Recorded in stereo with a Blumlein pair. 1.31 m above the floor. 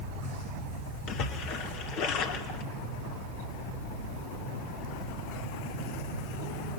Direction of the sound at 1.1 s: 40° left.